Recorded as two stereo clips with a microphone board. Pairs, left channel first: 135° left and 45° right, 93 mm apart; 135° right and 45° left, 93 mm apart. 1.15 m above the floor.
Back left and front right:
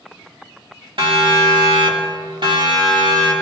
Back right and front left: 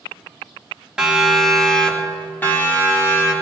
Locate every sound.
1.0 s a siren: 35° right, 2.5 m; by 3.3 s 80° right, 3.5 m